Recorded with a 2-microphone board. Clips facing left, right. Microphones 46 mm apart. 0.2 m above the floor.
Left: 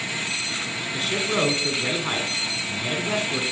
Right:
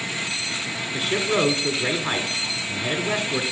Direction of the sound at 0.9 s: 10° right (ahead or behind).